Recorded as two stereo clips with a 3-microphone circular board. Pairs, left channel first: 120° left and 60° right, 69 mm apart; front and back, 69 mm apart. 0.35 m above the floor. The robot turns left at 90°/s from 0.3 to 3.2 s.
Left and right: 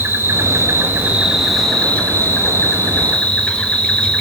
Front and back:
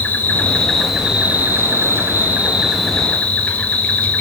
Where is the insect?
40° right, 1.1 m; by 4.2 s 60° left, 1.1 m.